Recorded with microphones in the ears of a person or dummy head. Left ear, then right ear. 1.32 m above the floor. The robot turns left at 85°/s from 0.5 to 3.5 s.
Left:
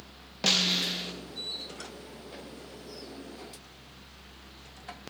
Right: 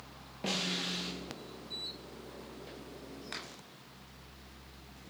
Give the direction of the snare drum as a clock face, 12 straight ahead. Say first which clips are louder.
Left 9 dB; 10 o'clock.